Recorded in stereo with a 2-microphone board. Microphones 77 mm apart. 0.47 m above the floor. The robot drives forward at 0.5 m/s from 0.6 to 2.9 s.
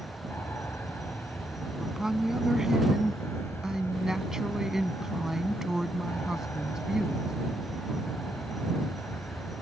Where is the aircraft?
30° left (ahead or behind); by 9.6 s 35° left (ahead or behind).